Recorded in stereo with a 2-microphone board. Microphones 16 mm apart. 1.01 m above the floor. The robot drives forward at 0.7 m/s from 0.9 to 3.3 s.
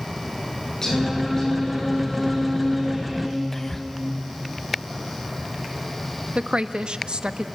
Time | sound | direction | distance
0.8 | singing | 30° left (ahead or behind) | 9 m
3.5 | whispering | 15° left (ahead or behind) | 0.9 m
6.3 | a woman speaking | 80° right | 0.9 m